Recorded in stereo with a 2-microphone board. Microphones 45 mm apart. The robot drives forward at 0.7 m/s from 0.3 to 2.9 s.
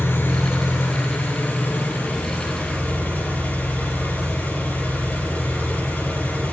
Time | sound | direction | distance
0.0 | an engine running | 60° left (ahead or behind) | 4 m